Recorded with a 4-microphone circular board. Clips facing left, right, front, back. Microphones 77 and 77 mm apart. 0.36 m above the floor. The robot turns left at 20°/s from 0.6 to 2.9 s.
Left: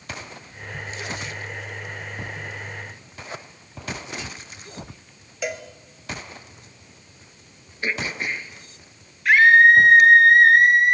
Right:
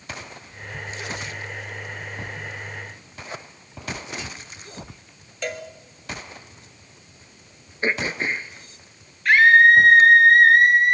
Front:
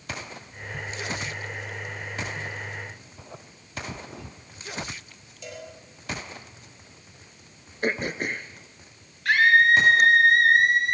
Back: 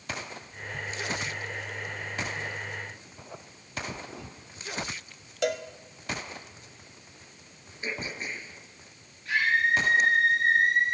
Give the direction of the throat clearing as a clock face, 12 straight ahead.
1 o'clock.